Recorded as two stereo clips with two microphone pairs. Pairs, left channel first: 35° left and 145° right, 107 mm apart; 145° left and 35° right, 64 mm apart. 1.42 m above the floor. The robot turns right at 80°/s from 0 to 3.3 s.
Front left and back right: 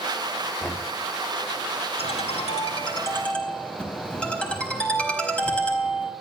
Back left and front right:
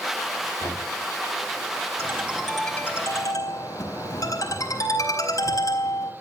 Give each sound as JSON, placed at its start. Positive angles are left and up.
{"t": 0.6, "sound": "knocking", "azimuth_deg": 110, "distance_m": 3.0}
{"t": 2.0, "sound": "a ringtone", "azimuth_deg": 10, "distance_m": 4.5}